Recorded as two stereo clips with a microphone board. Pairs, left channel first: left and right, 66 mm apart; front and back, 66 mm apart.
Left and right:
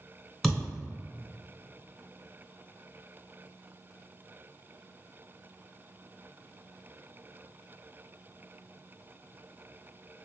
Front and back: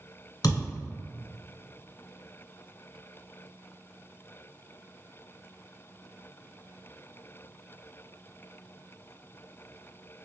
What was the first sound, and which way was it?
A thud, straight ahead.